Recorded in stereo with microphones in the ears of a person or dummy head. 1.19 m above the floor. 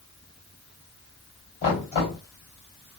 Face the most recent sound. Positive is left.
turn(degrees=35)  # may be behind; listen again after turning